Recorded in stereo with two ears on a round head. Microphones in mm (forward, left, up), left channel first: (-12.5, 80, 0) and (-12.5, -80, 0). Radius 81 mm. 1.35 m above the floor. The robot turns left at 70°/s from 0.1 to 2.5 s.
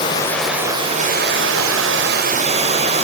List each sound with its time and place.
0.0 s running water: 25° left, 4 m; by 3.0 s 145° right, 4 m